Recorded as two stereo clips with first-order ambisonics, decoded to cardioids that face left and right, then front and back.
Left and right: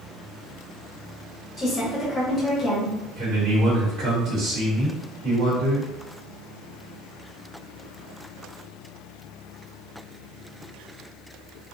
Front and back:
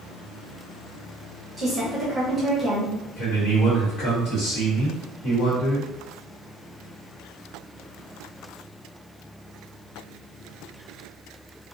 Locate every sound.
1.6 s a woman speaking: 115° left, 1.0 m
3.2 s a man speaking: 35° right, 1.2 m